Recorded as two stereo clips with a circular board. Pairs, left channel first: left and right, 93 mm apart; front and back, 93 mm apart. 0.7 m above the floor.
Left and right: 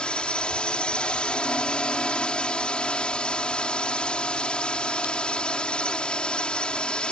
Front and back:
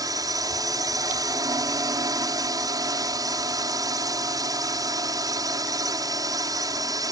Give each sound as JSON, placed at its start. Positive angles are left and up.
{"t": 0.0, "sound": "a drone", "azimuth_deg": 165}